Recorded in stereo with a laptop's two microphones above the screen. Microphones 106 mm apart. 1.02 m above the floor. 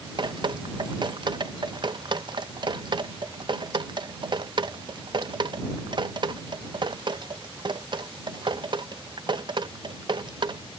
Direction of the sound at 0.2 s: 45° right (ahead or behind).